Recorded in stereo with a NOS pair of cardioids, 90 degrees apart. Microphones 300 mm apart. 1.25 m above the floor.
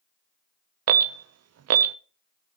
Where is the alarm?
60° right, 0.8 m.